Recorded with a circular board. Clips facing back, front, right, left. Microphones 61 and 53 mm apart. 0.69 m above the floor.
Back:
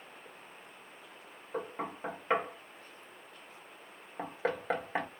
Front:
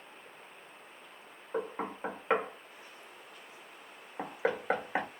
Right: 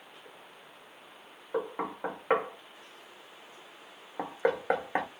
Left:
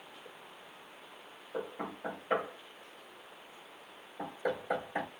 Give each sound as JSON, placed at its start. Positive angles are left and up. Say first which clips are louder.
{"t": 1.5, "sound": "knocking", "louder": "front 2 dB, right 6 dB", "azimuth_deg": -80, "distance_m": 1.1}